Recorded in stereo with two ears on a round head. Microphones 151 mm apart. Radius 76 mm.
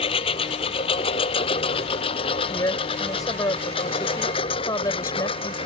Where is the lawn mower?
35° left (ahead or behind); by 5.7 s 30° left (ahead or behind).